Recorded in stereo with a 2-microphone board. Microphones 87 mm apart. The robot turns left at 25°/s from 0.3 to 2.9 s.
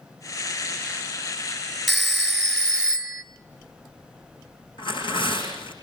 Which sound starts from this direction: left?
Tearing paper, at 4.8 s.